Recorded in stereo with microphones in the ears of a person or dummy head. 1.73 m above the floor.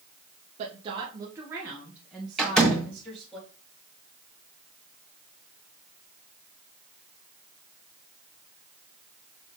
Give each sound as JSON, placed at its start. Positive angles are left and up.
{"t": 0.6, "sound": "a woman speaking", "side_deg": -35, "distance_m": 1.0}
{"t": 2.4, "sound": "a door slam", "side_deg": 0, "distance_m": 1.8}